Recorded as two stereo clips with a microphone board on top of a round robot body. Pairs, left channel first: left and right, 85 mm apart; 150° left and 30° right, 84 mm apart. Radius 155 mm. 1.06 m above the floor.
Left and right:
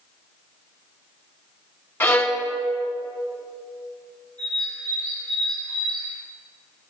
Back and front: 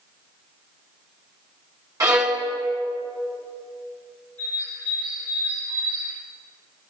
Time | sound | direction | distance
2.0 | a violin | 20° left | 1.2 m
4.4 | a bird | 70° right | 5 m